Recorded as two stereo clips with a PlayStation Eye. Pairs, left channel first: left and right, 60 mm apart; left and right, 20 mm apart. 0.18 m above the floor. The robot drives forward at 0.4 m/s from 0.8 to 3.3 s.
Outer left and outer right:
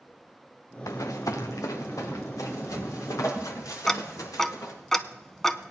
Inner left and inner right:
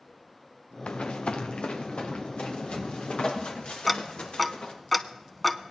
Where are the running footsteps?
70° left (ahead or behind), 1.4 m.